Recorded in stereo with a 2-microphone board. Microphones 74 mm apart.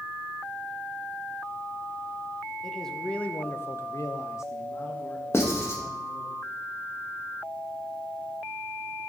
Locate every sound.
2.6 s a man speaking: 5° left (ahead or behind), 0.9 m; by 6.3 s 30° left (ahead or behind), 1.9 m
5.3 s writing: 40° left (ahead or behind), 1.4 m